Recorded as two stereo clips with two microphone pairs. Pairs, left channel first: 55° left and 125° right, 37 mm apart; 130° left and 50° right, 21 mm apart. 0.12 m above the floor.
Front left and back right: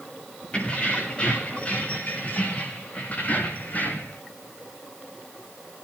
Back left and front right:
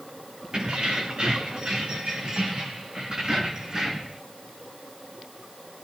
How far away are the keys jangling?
About 7.5 m.